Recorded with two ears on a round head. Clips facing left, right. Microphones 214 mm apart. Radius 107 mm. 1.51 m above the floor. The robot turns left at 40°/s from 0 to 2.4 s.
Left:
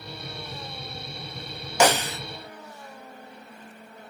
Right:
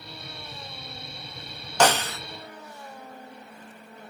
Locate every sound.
1.8 s a snare drum: 10° left (ahead or behind), 0.5 m; by 2.2 s 15° left (ahead or behind), 0.5 m